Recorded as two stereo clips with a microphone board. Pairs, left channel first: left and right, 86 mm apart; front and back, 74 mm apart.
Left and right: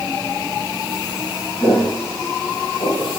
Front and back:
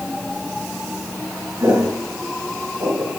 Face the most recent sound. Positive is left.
turn(degrees=150)